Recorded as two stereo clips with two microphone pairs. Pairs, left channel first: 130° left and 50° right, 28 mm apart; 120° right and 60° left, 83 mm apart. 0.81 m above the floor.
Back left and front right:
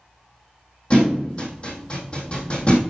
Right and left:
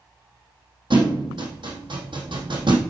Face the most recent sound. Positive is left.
turn(degrees=75)